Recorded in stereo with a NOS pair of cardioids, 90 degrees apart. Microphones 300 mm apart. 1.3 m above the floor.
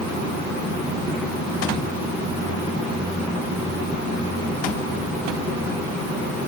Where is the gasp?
No gasp in this recording.